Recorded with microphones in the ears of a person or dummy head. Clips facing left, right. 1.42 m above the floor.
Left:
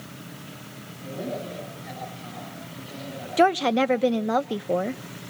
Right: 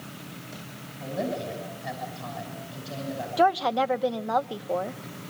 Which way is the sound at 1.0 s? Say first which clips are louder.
Right 2 dB; 85° right.